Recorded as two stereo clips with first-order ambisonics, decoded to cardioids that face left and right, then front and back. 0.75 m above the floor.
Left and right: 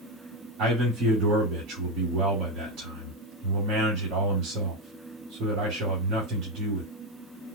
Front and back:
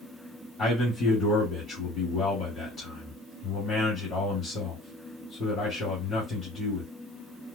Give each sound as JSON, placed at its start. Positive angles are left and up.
{"t": 0.6, "sound": "a man speaking", "azimuth_deg": -70, "distance_m": 2.5}